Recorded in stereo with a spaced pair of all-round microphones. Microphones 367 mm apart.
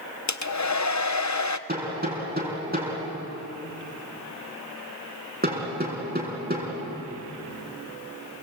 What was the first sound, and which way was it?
A hair dryer, 50° left (ahead or behind).